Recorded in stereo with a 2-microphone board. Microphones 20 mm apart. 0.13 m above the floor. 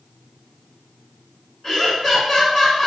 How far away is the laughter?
About 1.2 m.